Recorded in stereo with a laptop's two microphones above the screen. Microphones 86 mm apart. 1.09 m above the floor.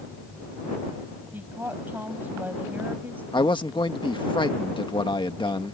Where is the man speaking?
70° left (ahead or behind).